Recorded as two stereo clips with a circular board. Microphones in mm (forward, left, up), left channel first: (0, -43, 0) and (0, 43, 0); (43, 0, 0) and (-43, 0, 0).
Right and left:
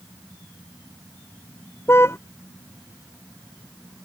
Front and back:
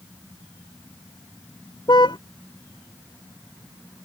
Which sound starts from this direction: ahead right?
A car horn, at 1.9 s.